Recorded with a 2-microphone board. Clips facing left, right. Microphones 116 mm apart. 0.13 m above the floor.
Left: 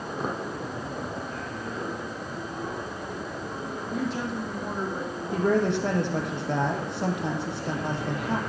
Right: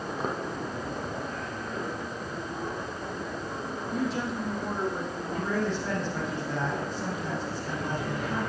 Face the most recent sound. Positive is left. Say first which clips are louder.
# left 7 dB
turn(degrees=70)  # may be behind; listen again after turning